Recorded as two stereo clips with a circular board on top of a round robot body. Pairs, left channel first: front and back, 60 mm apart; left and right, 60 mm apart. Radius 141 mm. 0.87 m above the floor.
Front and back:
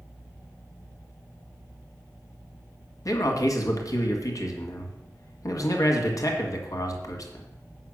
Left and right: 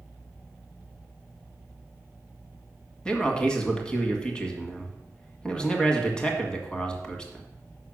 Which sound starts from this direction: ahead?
A man speaking, at 3.0 s.